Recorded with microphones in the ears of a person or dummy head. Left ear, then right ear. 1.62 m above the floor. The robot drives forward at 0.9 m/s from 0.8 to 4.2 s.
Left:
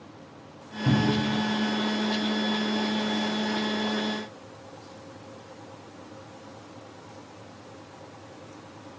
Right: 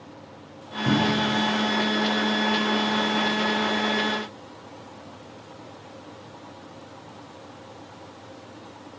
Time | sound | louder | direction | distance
0.8 | a cupboard door | right 3 dB | 60° left (ahead or behind) | 6 m